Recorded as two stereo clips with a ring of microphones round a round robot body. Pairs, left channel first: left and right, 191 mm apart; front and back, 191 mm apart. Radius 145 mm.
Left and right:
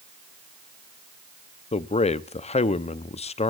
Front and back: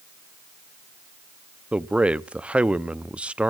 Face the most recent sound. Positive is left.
turn(degrees=100)